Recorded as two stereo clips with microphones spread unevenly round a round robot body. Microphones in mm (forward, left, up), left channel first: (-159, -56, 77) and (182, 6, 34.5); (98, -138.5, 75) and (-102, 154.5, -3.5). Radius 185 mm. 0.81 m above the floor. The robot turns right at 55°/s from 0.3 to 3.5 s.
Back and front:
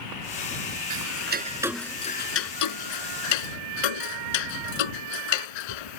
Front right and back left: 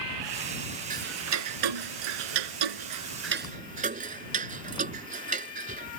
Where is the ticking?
55° left; by 6.0 s 165° right.